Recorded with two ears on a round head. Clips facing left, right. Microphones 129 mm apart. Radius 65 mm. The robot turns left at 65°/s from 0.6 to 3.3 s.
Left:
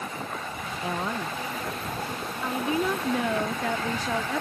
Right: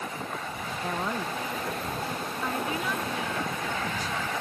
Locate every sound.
0.8 s a woman speaking: 10° left (ahead or behind); by 1.4 s 5° right (ahead or behind)
2.4 s a woman speaking: 175° left; by 4.4 s 120° left